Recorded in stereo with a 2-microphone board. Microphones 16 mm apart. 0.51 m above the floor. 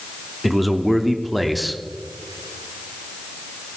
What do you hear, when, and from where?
0.4 s a man speaking: 5° right (ahead or behind), 0.8 m